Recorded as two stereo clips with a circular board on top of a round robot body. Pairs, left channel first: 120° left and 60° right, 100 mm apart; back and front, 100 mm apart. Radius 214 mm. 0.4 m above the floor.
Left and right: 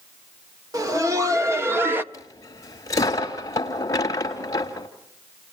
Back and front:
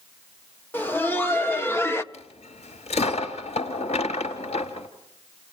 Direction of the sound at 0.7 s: 110° right.